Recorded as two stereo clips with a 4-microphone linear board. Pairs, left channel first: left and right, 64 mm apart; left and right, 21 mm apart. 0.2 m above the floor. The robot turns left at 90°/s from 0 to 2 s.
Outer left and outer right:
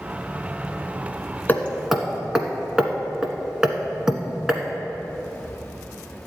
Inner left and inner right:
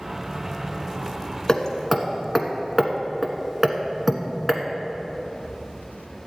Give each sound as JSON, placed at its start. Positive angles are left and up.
{"t": 1.5, "sound": "hammering", "side_deg": 30, "distance_m": 1.1}